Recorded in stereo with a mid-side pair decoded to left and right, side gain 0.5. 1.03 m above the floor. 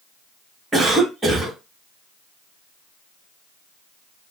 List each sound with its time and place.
0.7 s a cough: 25° right, 1.6 m